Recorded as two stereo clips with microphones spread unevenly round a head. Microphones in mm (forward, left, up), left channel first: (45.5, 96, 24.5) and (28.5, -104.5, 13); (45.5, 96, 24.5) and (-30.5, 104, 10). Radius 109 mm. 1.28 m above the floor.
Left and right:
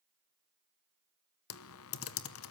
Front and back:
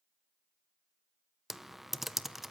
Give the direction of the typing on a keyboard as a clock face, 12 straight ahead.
9 o'clock.